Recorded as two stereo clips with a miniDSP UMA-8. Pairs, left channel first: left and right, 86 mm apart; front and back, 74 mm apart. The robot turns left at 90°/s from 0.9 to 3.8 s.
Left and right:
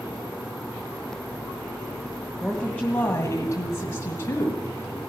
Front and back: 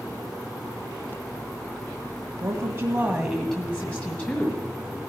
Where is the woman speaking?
175° right, 1.7 m; by 5.0 s 60° left, 1.7 m.